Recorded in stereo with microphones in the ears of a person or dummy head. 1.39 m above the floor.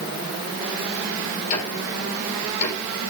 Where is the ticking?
40° left (ahead or behind), 3.5 m.